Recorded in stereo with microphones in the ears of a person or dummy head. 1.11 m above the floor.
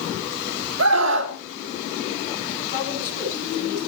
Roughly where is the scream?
Right.